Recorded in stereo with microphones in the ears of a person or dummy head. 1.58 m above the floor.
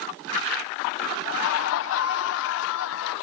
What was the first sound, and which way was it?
Laughter, 70° left (ahead or behind).